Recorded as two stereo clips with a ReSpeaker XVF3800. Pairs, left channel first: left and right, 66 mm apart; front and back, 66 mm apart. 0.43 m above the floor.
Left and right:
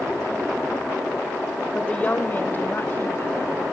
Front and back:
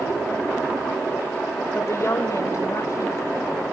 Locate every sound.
1.8 s a woman speaking: 20° left, 1.1 m; by 3.7 s 40° left, 3.5 m